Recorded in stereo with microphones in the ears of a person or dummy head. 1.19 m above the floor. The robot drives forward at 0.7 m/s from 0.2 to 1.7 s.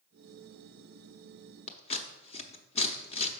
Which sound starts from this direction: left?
Scissors, at 1.7 s.